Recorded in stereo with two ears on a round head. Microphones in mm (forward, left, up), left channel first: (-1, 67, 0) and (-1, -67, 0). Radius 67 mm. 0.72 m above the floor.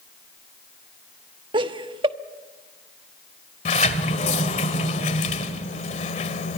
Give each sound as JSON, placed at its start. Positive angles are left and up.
{"t": 1.5, "sound": "laughter", "side_deg": -35, "distance_m": 1.1}
{"t": 3.6, "sound": "a sliding door", "side_deg": 50, "distance_m": 1.9}